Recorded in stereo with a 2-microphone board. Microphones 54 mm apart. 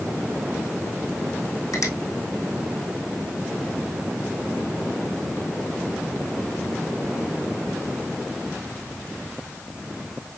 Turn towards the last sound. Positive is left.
turn(degrees=75)  # may be behind; listen again after turning